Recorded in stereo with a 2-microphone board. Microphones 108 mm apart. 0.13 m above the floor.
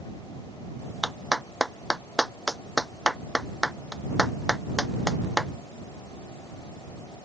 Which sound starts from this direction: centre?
A clap, at 1.0 s.